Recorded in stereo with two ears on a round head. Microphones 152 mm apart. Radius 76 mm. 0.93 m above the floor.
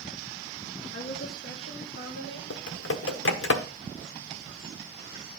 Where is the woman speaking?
65° left (ahead or behind), 1.8 m; by 2.4 s 55° left (ahead or behind), 3 m.